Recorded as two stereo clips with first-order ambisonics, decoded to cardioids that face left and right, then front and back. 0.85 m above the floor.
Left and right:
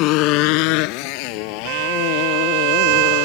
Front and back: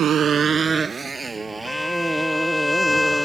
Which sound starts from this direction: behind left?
A motorcycle, at 0.0 s.